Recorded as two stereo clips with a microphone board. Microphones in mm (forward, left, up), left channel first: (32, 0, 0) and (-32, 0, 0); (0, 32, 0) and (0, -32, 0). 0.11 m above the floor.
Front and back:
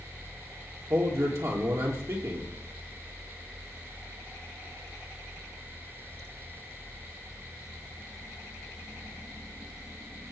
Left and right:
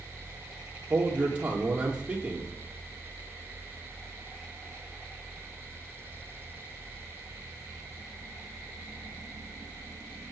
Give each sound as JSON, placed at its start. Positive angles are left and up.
{"t": 0.9, "sound": "a man speaking", "azimuth_deg": -155, "distance_m": 4.0}